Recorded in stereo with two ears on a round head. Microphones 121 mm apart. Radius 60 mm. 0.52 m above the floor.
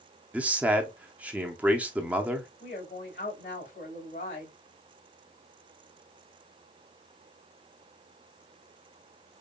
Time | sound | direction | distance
0.3 | a man speaking | 10° right (ahead or behind) | 0.7 m
2.6 | a woman speaking | 60° left (ahead or behind) | 3 m